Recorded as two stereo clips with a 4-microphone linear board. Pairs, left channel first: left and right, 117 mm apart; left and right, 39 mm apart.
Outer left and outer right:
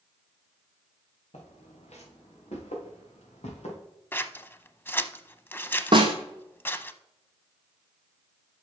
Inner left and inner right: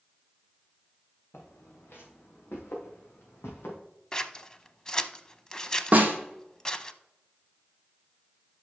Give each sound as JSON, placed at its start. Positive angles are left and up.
{"t": 1.3, "sound": "footsteps", "side_deg": 85, "distance_m": 3.0}
{"t": 4.1, "sound": "scissors", "side_deg": 20, "distance_m": 0.5}
{"t": 5.9, "sound": "a snare drum", "side_deg": -45, "distance_m": 2.0}